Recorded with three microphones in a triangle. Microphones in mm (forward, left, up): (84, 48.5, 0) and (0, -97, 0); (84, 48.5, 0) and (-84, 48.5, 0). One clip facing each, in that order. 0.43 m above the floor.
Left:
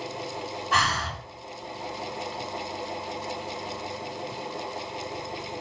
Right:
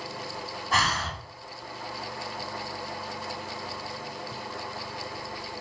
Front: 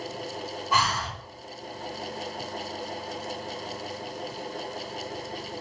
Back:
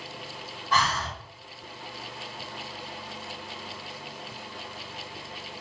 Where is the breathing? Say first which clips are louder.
Even, back 1 dB; 80° right, 1.8 m.